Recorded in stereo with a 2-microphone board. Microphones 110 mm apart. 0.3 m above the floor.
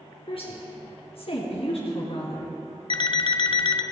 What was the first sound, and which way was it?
A woman speaking, 60° left (ahead or behind).